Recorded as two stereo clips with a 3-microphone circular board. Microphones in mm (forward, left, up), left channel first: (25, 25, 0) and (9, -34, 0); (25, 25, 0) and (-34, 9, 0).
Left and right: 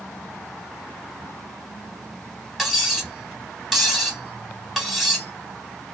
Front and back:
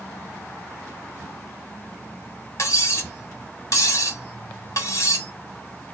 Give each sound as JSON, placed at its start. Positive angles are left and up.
{"t": 2.6, "sound": "cutlery clinking", "azimuth_deg": -20, "distance_m": 1.1}